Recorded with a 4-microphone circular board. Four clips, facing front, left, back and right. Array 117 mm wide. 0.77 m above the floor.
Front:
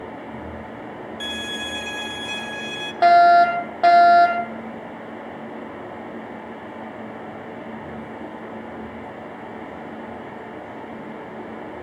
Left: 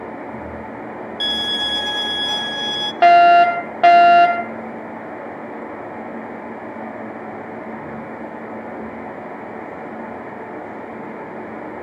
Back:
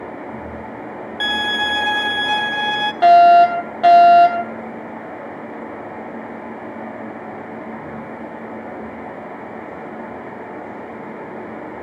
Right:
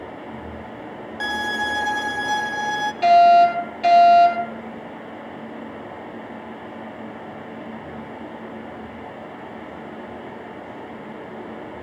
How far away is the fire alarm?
About 3.5 m.